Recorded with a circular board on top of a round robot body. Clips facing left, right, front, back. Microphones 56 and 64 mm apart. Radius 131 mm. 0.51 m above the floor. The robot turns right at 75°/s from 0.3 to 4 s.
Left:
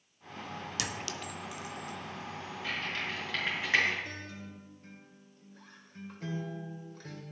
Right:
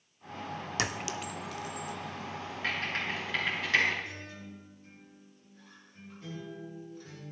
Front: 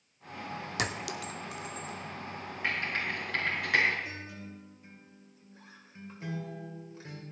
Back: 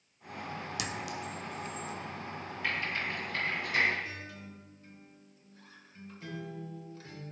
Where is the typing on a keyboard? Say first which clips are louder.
Right 3 dB, front 2 dB; 65° right, 5.5 m; by 3.9 s 35° left, 5.5 m.